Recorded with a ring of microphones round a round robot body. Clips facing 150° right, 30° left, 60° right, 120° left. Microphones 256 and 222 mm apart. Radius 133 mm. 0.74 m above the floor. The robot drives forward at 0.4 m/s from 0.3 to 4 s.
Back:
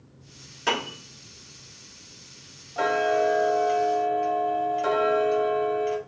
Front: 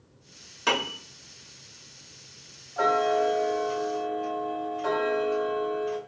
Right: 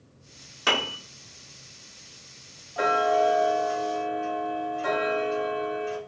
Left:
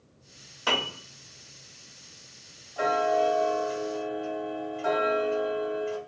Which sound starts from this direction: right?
Ticking, at 2.8 s.